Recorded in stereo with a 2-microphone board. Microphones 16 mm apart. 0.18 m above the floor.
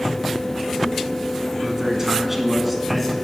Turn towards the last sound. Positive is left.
turn(degrees=10)  # may be behind; listen again after turning